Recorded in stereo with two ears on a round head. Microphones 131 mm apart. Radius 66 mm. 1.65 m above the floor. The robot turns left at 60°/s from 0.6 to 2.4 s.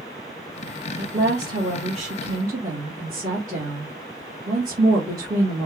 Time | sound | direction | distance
1.0 | a woman speaking | 70° right | 2 m